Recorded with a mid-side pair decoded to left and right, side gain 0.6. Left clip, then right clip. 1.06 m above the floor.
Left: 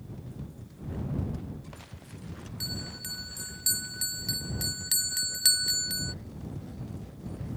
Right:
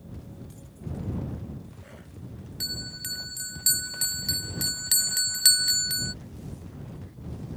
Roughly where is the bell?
Ahead.